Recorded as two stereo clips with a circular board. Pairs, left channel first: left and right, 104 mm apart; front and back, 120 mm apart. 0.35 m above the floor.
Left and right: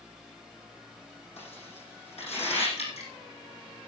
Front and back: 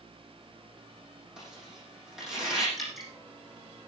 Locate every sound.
1.4 s tearing paper: 95° left, 8 m
2.8 s dripping: 90° left, 4 m